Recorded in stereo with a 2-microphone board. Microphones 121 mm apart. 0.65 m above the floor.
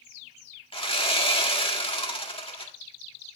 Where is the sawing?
45° left (ahead or behind), 1.7 m.